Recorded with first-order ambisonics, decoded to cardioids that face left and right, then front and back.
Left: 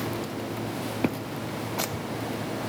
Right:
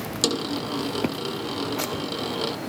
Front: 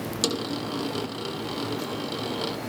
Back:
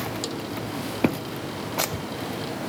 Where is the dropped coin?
65° right.